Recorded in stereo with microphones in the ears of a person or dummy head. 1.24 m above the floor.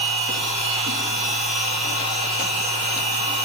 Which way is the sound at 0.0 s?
45° right (ahead or behind).